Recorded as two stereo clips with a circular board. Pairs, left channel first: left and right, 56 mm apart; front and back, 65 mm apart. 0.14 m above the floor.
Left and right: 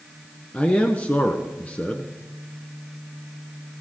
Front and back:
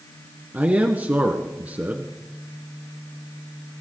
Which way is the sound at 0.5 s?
135° left.